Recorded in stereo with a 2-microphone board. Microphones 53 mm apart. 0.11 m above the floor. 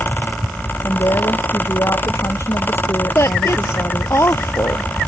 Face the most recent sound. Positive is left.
turn(degrees=55)  # may be behind; listen again after turning